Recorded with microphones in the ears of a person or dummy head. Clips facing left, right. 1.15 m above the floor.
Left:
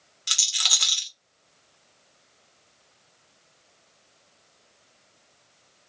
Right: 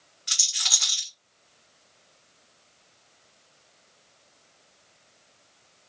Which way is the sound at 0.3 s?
45° left (ahead or behind).